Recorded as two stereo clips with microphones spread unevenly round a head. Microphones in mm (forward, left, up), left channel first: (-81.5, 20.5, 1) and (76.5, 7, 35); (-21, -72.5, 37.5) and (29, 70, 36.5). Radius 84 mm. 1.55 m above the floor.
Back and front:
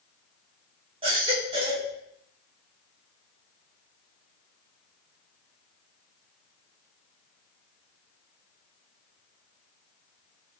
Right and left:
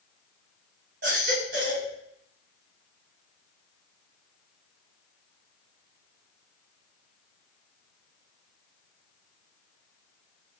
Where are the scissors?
I don't hear scissors.